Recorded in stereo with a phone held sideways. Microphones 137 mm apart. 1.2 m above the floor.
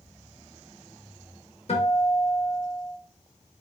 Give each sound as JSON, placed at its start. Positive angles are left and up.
{"t": 1.7, "sound": "a guitar", "side_deg": 55, "distance_m": 1.0}